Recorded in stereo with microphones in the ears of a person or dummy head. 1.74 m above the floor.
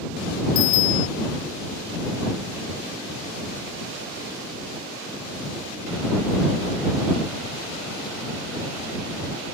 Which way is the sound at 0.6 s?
85° left.